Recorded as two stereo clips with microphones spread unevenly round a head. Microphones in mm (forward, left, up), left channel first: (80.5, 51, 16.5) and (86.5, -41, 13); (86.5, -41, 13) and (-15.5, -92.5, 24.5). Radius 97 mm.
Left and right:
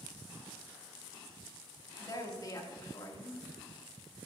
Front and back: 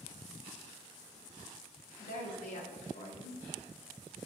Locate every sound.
2.0 s a woman speaking: 45° left, 2.5 m